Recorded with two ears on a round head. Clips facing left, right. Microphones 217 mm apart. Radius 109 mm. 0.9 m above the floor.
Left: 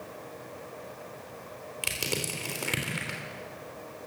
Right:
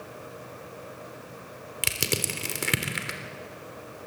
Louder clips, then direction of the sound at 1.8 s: Right 3 dB; 30° right (ahead or behind).